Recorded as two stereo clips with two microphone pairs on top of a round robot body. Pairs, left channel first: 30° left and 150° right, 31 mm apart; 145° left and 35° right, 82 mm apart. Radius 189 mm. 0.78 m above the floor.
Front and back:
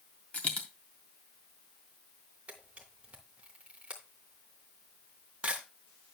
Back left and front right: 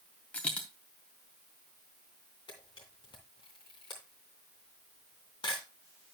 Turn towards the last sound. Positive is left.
turn(degrees=170)